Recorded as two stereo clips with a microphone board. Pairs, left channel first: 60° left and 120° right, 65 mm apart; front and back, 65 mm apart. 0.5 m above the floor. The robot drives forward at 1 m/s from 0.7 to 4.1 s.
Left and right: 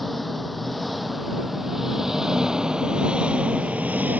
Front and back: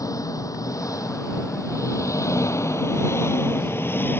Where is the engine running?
30° right; by 4.2 s 55° right.